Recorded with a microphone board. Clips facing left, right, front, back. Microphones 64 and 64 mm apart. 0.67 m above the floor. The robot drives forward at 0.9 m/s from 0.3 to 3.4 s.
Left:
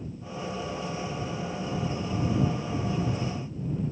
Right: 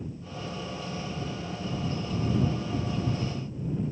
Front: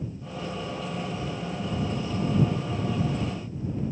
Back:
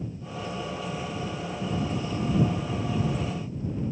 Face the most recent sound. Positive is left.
No sound to turn to.